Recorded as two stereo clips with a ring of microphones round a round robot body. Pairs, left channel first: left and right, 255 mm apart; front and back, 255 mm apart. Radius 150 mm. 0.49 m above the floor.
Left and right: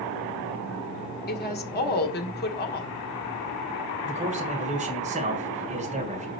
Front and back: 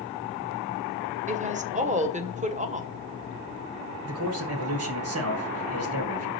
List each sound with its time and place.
1.3 s a woman speaking: 125° left, 1.4 m
4.0 s a man speaking: 155° right, 2.0 m